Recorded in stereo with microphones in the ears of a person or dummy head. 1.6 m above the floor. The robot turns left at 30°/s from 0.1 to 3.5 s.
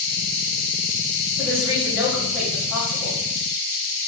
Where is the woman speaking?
155° right, 1.3 m; by 3.2 s 150° left, 1.3 m.